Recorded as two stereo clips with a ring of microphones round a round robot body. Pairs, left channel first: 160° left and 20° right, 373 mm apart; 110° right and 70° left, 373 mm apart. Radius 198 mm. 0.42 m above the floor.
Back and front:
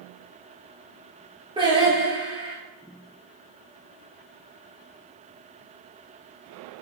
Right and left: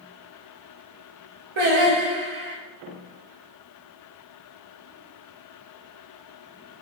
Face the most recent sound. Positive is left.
turn(degrees=55)